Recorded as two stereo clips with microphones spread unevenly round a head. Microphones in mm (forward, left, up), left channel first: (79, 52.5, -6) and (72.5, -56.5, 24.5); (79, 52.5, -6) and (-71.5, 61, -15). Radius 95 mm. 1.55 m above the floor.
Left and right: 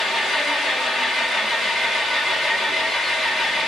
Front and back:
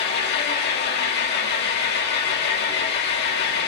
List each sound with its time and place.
0.0 s an engine running: 10° right, 2.5 m